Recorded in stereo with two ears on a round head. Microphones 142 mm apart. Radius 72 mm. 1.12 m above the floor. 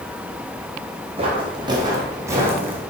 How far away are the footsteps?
About 2.5 m.